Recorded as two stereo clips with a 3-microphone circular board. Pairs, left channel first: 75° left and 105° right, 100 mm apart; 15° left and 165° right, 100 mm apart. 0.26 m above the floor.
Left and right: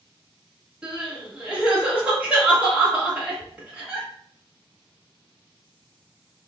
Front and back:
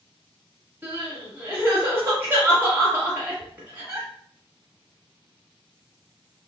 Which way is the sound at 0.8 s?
155° right.